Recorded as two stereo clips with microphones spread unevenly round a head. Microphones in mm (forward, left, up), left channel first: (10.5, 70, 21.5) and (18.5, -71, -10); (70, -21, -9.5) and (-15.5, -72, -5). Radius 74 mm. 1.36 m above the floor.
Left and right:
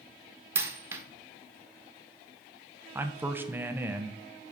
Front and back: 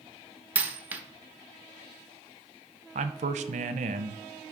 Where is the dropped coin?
170° right, 0.8 m.